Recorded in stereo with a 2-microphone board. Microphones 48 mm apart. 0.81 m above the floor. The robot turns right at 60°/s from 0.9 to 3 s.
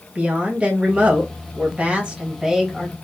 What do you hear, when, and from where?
0.1 s a woman speaking: 120° right, 1.0 m; by 2.9 s 5° left, 1.0 m